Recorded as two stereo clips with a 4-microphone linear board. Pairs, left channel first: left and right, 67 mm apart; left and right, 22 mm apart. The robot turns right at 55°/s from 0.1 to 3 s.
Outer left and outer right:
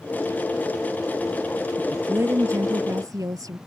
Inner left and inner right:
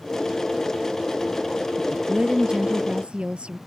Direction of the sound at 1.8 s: 160° right.